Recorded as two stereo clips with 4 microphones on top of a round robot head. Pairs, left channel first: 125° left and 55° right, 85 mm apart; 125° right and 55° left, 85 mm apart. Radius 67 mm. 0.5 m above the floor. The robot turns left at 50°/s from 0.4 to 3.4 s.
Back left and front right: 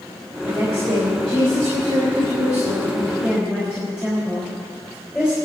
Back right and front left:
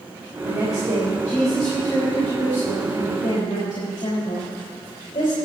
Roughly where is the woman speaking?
Ahead.